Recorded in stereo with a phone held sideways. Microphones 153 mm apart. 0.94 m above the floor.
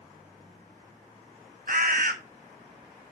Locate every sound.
1.7 s a bird: 65° right (ahead or behind), 1.1 m